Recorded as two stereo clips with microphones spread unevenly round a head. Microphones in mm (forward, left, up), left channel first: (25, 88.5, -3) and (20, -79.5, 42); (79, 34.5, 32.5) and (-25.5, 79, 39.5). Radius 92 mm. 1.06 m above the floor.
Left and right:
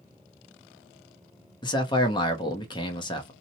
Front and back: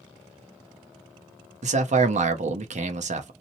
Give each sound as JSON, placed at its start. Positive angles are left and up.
{"t": 1.6, "sound": "a man speaking", "azimuth_deg": 145, "distance_m": 0.6}